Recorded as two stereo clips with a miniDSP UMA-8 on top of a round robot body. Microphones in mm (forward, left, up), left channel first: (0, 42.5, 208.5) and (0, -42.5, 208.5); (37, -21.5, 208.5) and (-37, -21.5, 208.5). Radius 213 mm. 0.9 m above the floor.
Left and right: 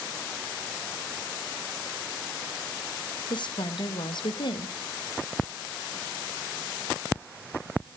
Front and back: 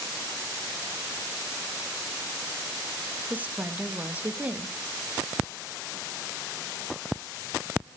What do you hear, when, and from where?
3.3 s a woman speaking: 110° left, 1.8 m